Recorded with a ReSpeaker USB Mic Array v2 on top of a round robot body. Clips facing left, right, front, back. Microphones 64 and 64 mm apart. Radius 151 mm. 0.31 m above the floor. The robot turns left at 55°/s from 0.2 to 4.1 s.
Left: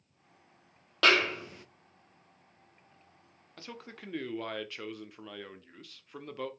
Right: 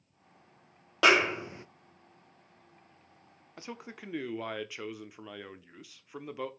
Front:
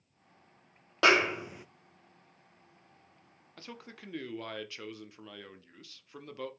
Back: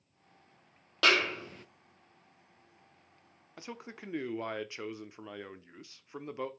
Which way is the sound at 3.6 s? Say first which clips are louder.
Right 2 dB, back 3 dB; 130° right.